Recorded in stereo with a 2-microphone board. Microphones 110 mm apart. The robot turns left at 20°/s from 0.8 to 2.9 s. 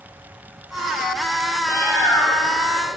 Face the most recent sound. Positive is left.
turn(degrees=5)  # may be behind; listen again after turning